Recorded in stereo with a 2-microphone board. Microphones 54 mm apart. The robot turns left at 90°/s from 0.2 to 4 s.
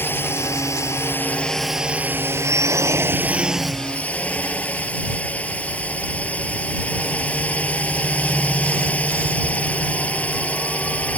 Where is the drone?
130° left; by 11.2 s 150° left.